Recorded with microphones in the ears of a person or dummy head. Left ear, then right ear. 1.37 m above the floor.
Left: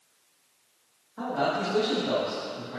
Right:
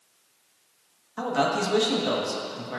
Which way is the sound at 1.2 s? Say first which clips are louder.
Right 3 dB; 70° right (ahead or behind).